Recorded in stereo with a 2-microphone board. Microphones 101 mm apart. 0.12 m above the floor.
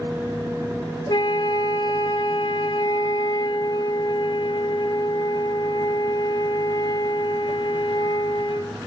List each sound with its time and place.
1.1 s a flute: 50° left (ahead or behind), 0.6 m